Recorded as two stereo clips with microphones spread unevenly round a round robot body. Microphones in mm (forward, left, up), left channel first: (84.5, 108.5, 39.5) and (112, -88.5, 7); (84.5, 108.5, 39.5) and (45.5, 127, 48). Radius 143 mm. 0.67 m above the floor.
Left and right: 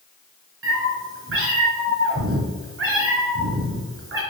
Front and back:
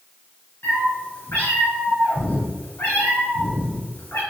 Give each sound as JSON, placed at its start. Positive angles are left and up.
{"t": 0.6, "sound": "a cat meowing", "azimuth_deg": -70, "distance_m": 4.0}